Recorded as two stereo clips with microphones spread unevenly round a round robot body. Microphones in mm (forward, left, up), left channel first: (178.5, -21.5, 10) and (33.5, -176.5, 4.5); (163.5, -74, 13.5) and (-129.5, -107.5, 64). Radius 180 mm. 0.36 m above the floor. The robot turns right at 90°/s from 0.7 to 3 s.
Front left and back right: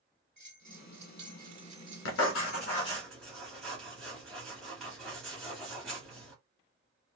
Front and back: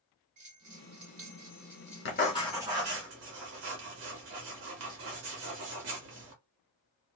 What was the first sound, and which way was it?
A bell, 175° right.